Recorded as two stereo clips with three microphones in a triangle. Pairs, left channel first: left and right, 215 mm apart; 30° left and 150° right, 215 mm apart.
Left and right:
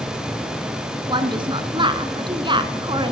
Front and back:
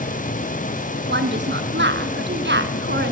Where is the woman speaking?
155° right, 2 m.